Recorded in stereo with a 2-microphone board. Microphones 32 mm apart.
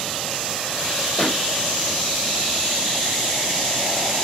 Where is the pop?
15° left (ahead or behind), 3 m.